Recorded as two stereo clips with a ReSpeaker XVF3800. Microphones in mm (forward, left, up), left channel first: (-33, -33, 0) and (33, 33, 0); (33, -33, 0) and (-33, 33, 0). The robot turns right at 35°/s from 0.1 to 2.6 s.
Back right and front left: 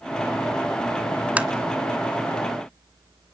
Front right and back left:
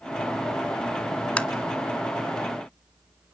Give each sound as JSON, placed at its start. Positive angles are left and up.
{"t": 1.4, "sound": "tapping", "azimuth_deg": 0, "distance_m": 1.1}